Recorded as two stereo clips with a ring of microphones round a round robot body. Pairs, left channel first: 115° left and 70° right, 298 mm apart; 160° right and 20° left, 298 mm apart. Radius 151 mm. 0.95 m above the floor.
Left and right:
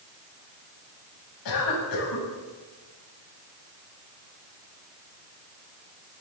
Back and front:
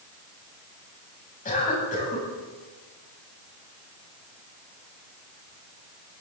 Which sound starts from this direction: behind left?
A cough, at 1.4 s.